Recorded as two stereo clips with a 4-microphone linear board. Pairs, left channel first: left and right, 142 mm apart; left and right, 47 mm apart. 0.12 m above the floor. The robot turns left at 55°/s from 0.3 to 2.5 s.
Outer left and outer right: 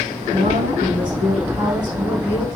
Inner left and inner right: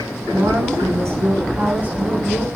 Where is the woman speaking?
65° right, 6.5 m; by 2.5 s 175° left, 6.5 m.